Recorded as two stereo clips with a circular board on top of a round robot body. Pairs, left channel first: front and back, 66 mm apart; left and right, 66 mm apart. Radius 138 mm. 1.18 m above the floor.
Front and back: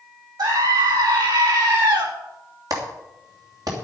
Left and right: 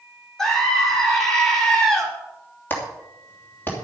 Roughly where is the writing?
No writing in this recording.